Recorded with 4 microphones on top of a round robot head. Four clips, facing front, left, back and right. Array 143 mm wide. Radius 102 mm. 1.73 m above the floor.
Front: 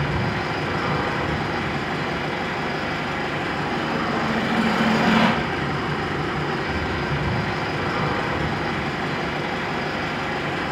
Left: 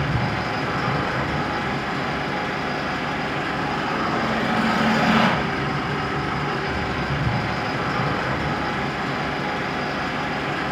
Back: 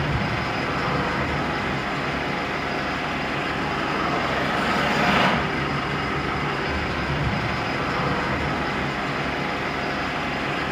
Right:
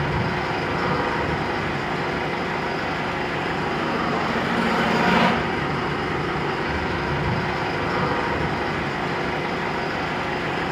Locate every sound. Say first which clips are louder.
0.0 s an engine running: right 1 dB, front 1 dB; 80° left, 1.9 m